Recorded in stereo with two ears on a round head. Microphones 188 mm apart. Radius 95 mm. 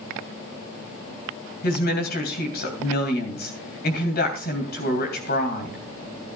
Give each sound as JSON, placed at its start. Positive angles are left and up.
{"t": 1.6, "sound": "a woman speaking", "side_deg": 45, "distance_m": 3.0}